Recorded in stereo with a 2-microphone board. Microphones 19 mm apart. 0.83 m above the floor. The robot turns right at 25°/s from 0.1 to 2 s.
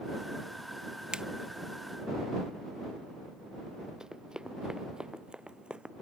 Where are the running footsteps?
35° right (ahead or behind); by 5.9 s 60° right (ahead or behind).